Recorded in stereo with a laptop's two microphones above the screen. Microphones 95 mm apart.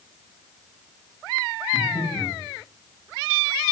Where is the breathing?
75° left (ahead or behind), 1.6 m.